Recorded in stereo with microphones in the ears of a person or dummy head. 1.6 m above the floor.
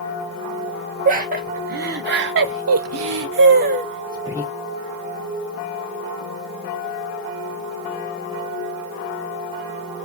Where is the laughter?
45° right (ahead or behind), 2 m; by 4.5 s 10° right (ahead or behind), 1.2 m.